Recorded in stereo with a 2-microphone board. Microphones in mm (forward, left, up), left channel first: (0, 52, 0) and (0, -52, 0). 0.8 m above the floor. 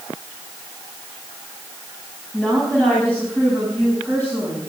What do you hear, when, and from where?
2.3 s a woman speaking: 15° left (ahead or behind), 5.5 m; by 4.6 s 20° left (ahead or behind), 7.5 m